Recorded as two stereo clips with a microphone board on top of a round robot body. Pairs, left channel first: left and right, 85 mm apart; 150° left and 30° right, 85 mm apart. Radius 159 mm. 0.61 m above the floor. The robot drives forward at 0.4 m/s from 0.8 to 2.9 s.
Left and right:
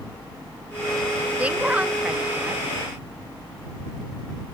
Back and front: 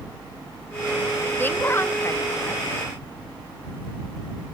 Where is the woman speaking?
155° right, 1.3 m; by 2.6 s 165° right, 1.6 m.